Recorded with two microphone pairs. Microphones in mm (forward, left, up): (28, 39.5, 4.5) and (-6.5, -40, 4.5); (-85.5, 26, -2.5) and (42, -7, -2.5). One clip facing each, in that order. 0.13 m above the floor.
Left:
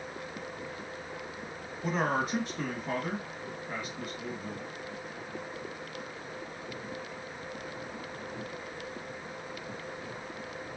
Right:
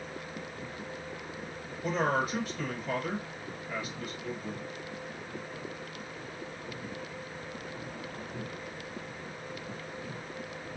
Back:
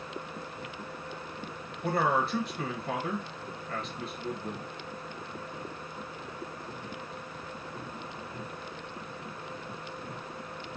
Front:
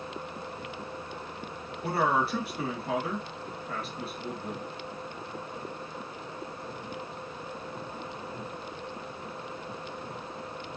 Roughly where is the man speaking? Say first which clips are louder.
Right 1 dB, front 1 dB; ahead left.